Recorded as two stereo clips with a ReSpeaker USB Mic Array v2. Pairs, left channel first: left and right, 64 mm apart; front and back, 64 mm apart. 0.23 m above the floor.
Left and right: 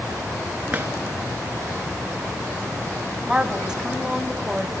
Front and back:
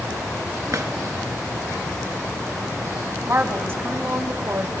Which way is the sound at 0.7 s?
150° right.